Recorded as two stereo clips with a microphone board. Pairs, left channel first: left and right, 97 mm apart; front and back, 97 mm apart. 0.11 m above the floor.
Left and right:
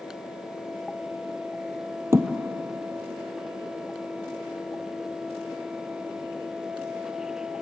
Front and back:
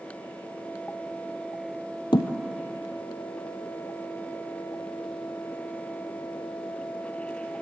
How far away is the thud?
About 1.6 m.